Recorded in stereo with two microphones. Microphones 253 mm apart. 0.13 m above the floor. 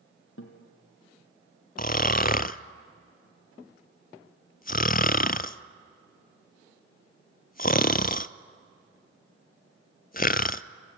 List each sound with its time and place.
0.4 s a guitar: 60° left (ahead or behind), 3 m
1.8 s snoring: 35° left (ahead or behind), 0.5 m